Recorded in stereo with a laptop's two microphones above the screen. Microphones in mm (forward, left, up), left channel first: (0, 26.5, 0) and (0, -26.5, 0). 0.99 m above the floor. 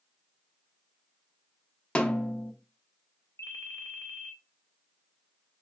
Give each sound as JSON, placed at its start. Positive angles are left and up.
{"t": 1.9, "sound": "a snare drum", "side_deg": 20, "distance_m": 0.5}
{"t": 3.4, "sound": "a ringtone", "side_deg": 65, "distance_m": 0.6}